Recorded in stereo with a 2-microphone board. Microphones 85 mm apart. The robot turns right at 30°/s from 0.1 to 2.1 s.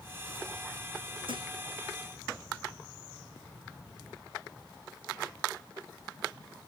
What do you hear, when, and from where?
1.3 s a thud: 80° right, 5 m; by 1.5 s 85° right, 5 m